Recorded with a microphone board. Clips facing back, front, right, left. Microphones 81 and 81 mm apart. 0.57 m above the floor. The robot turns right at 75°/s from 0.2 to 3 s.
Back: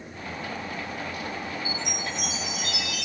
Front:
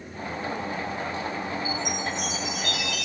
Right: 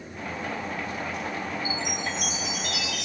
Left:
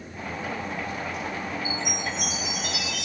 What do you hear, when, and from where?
1.6 s a chime: 45° left, 1.5 m; by 3.0 s 150° left, 1.5 m